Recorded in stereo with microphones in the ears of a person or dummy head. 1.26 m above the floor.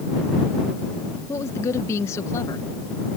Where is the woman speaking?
15° left (ahead or behind).